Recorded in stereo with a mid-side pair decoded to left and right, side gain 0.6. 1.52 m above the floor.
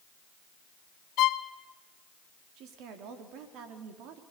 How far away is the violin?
About 1.1 m.